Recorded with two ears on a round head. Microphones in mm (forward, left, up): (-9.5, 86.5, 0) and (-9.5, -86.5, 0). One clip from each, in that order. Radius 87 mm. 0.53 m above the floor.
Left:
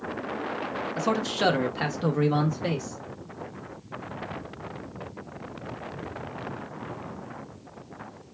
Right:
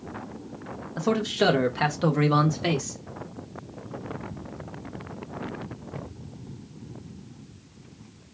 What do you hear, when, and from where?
1.0 s a man speaking: 30° left (ahead or behind), 0.9 m; by 3.0 s 35° right (ahead or behind), 1.1 m